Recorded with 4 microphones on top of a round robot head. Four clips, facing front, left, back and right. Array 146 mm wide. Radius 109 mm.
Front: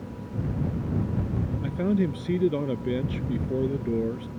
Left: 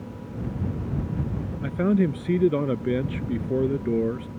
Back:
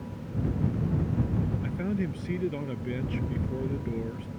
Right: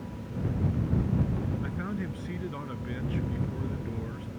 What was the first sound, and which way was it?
A man speaking, 70° left.